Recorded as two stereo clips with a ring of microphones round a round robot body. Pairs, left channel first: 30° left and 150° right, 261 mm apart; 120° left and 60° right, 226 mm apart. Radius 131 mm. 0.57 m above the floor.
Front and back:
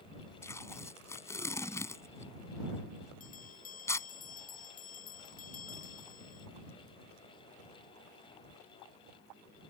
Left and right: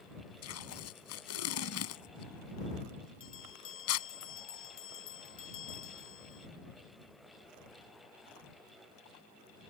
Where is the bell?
90° left.